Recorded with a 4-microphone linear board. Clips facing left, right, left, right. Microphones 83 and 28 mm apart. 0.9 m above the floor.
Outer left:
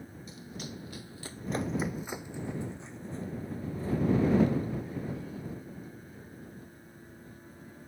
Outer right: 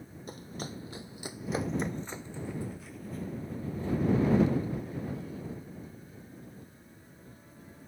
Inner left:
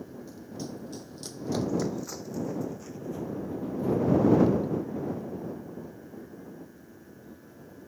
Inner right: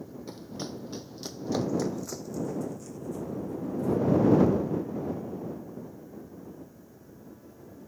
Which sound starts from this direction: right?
Running footsteps, at 0.3 s.